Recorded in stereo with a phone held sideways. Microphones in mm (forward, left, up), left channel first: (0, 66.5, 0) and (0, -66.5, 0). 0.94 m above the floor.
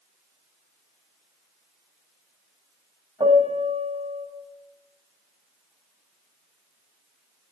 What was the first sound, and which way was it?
A piano, 50° right (ahead or behind).